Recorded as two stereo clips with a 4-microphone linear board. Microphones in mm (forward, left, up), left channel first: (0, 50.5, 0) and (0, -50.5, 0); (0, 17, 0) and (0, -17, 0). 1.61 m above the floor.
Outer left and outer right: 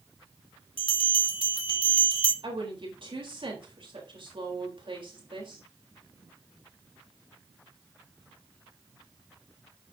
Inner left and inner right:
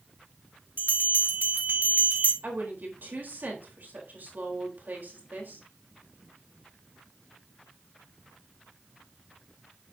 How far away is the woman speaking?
About 4 m.